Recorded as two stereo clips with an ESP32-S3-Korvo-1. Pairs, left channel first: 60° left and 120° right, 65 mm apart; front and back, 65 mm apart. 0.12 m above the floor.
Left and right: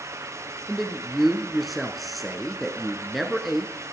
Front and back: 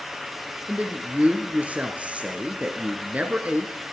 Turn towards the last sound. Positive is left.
turn(degrees=150)